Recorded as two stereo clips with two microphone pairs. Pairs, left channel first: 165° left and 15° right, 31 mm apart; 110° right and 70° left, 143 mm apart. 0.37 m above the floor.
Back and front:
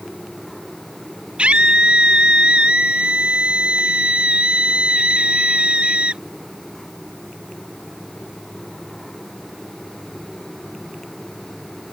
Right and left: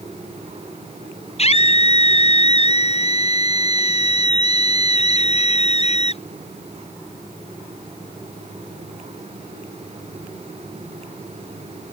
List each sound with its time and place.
1.4 s a scream: 65° right